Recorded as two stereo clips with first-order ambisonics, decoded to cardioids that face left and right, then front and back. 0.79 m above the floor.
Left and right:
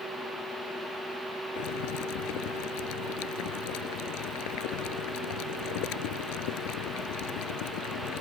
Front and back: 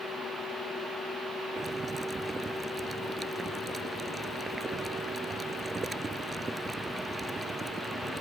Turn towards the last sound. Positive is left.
turn(degrees=105)